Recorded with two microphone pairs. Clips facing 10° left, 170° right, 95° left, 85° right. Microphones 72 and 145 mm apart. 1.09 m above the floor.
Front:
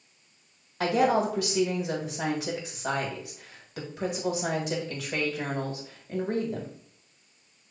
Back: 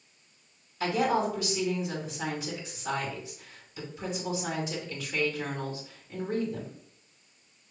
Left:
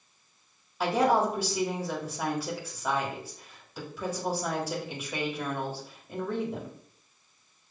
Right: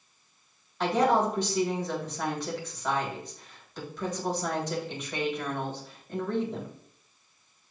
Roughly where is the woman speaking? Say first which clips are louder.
Front 3 dB, even; ahead.